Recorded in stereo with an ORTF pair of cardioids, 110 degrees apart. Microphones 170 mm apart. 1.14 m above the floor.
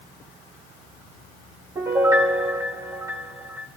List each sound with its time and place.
1.8 s a piano: 20° right, 3 m